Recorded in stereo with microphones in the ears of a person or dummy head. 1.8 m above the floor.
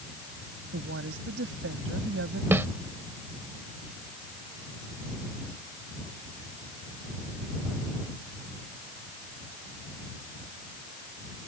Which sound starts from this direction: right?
A woman speaking, at 0.7 s.